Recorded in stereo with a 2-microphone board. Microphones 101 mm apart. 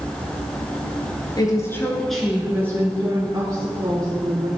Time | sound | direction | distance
1.4 | a woman speaking | 40° left (ahead or behind) | 1.6 m